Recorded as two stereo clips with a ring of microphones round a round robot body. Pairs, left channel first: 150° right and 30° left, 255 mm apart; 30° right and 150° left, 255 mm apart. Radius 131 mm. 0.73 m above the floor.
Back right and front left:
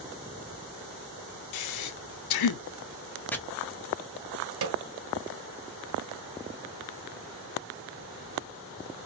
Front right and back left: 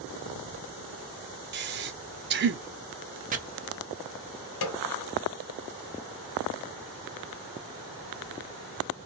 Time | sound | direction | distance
1.5 | breathing | 160° right | 0.5 m
3.3 | chopping | 135° left | 0.6 m
4.6 | a snare drum | straight ahead | 0.8 m